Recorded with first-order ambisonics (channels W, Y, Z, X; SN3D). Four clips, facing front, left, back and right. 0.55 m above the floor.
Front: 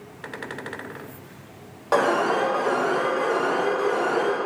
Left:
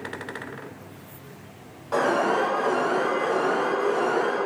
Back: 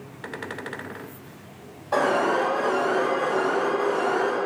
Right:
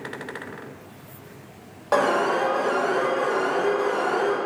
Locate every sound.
1.9 s an alarm: 40° right, 1.2 m